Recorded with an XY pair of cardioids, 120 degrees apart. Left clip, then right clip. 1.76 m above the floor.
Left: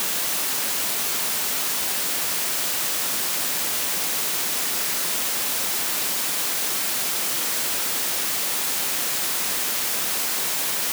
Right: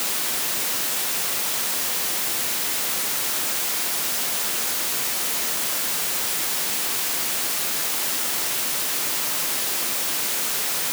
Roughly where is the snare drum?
I don't hear a snare drum.